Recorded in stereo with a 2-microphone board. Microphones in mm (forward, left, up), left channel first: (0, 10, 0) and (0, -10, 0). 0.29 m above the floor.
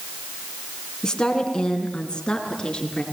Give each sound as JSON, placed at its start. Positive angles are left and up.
{"t": 1.0, "sound": "a woman speaking", "side_deg": 35, "distance_m": 3.5}